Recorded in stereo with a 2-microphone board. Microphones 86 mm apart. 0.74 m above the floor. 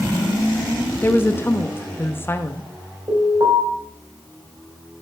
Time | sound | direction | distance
1.0 | a woman speaking | 25° left (ahead or behind) | 0.8 m
3.1 | an alarm | 60° right (ahead or behind) | 5 m